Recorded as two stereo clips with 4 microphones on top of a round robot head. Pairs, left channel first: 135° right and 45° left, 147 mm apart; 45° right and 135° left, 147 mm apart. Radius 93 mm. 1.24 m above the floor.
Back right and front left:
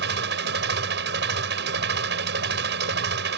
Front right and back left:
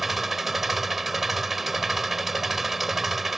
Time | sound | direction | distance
0.0 | an engine running | 45° left | ?